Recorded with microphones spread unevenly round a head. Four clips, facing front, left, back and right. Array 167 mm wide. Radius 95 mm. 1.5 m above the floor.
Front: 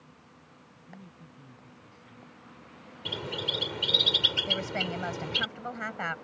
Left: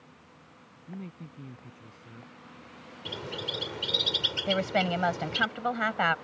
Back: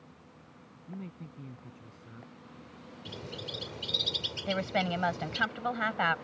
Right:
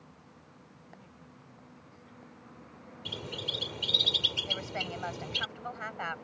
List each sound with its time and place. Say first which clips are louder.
0.9 s a man speaking: left 15 dB, back 7 dB; 110° left
3.0 s a bird: left 4 dB, front 7 dB; 20° left
4.5 s a woman speaking: left 13 dB, back 5 dB; 85° left